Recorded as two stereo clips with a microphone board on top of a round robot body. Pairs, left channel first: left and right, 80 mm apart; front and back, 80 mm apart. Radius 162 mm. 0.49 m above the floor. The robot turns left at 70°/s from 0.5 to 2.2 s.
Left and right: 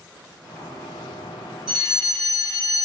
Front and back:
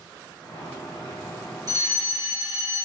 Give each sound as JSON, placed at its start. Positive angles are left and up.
{"t": 1.7, "sound": "a fire alarm", "azimuth_deg": -170, "distance_m": 2.5}